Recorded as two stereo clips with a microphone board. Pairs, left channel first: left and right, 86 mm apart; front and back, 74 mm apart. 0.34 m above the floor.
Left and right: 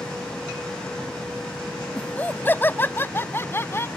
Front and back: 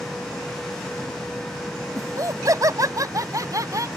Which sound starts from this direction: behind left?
Laughter, at 1.9 s.